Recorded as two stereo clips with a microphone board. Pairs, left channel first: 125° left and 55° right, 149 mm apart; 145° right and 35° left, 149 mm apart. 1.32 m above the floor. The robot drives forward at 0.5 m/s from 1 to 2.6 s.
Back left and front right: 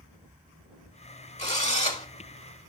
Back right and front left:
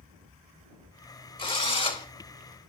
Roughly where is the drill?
Behind.